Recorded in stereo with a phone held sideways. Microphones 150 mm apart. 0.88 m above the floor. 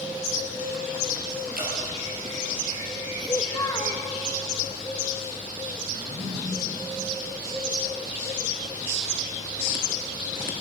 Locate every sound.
1.6 s dripping: 75° right (ahead or behind), 3 m
3.2 s a child speaking: 25° left (ahead or behind), 0.7 m
6.0 s a drawer: 70° right (ahead or behind), 3.5 m